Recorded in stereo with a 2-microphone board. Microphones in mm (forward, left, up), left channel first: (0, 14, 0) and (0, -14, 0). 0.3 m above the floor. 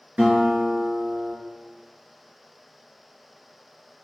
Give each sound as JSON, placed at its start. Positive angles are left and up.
{"t": 0.2, "sound": "a guitar", "side_deg": -65, "distance_m": 3.0}